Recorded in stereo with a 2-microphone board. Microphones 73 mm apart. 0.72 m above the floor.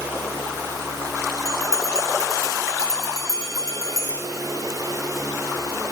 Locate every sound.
1.4 s a bell: 50° left (ahead or behind), 3.5 m